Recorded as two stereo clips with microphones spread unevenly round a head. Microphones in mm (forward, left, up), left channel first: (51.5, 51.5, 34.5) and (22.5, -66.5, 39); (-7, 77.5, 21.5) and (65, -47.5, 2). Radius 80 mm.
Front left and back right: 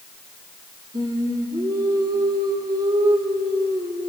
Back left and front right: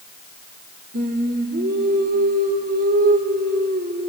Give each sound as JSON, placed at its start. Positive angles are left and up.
{"t": 0.9, "sound": "singing", "azimuth_deg": -50, "distance_m": 2.5}